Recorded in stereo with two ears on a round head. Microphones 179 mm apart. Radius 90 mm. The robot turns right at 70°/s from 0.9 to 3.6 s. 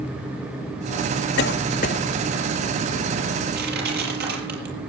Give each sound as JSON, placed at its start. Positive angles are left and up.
{"t": 1.4, "sound": "a cough", "side_deg": 60, "distance_m": 1.4}
{"t": 3.5, "sound": "crushing", "side_deg": -55, "distance_m": 7.5}